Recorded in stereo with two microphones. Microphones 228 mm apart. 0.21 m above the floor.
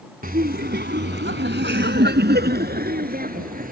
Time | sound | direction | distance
0.2 | laughter | 40° right (ahead or behind) | ?